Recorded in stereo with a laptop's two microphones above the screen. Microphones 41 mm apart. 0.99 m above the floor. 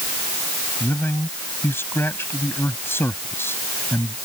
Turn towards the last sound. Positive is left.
turn(degrees=75)  # may be behind; listen again after turning